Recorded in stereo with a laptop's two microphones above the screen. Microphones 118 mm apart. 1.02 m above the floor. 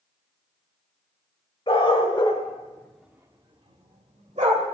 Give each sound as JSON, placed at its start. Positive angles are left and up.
{"t": 1.7, "sound": "a dog barking", "side_deg": 50, "distance_m": 2.0}